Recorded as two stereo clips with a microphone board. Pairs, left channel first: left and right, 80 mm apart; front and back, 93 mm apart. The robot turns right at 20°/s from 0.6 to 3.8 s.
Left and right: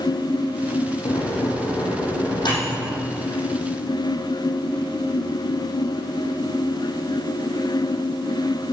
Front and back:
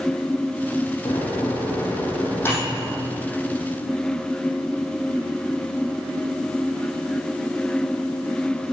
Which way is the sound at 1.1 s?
40° left.